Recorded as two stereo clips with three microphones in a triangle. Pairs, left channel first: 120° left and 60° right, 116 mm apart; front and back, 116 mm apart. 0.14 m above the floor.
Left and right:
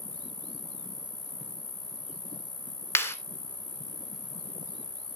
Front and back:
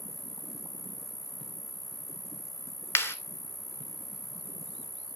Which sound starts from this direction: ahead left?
A clap, at 3.0 s.